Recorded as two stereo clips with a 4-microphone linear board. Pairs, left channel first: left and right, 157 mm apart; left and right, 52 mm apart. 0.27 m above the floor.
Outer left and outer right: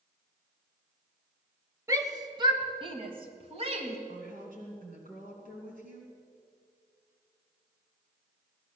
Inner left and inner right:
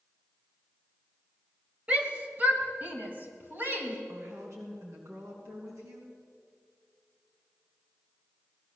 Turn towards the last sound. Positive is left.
turn(degrees=-65)  # may be behind; listen again after turning